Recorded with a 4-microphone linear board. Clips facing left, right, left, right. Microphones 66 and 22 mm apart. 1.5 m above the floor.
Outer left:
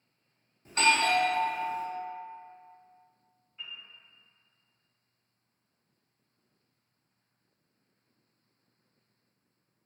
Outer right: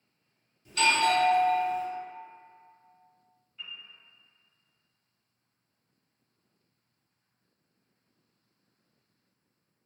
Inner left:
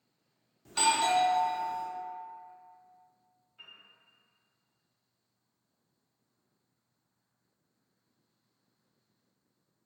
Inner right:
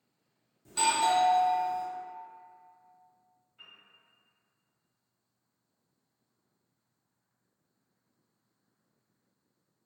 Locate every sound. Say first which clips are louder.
0.7 s a doorbell: outer right 1 dB, even; 35° left (ahead or behind), 0.5 m
3.6 s a piano: even, inner left 1 dB; 15° left (ahead or behind), 0.9 m